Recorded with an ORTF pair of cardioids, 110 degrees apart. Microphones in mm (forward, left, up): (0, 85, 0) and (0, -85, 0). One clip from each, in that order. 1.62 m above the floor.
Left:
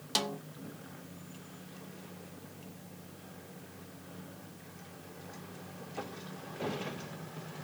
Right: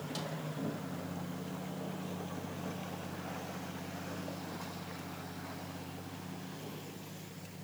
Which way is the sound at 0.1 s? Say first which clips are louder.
Left 11 dB; 65° left.